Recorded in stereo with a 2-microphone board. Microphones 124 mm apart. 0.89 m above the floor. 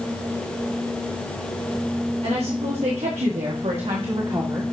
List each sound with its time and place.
2.2 s a woman speaking: 65° right (ahead or behind), 2.5 m; by 4.6 s 25° right (ahead or behind), 1.5 m